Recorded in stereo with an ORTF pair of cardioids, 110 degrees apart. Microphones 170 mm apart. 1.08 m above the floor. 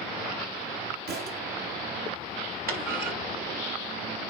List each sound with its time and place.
1.1 s a thud: 70° right, 3.5 m
2.7 s a clunk: 60° right, 5.5 m